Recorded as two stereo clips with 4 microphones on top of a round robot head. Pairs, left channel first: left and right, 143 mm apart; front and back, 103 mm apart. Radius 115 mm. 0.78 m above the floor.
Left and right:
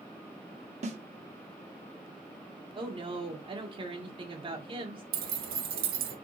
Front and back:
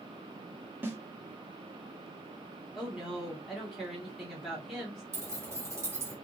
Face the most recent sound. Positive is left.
turn(degrees=-110)